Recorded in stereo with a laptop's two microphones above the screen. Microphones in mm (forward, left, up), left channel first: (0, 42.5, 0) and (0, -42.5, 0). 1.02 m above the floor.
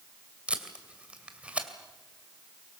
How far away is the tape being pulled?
About 2.5 m.